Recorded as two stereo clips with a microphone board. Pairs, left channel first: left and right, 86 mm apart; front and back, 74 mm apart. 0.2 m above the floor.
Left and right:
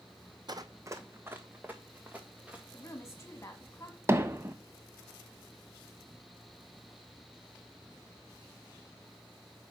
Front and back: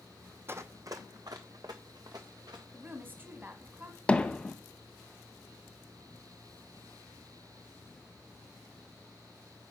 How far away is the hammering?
About 0.7 m.